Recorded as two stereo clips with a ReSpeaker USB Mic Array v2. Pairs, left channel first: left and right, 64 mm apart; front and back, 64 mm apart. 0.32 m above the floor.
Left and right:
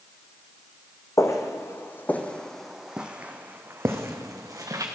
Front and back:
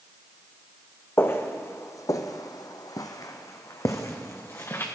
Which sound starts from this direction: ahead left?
Footsteps, at 1.2 s.